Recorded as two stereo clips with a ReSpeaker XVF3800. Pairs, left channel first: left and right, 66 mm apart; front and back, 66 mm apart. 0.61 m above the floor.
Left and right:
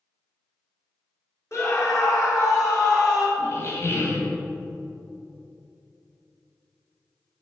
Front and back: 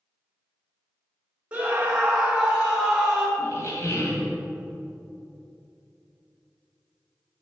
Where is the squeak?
40° left, 2 m.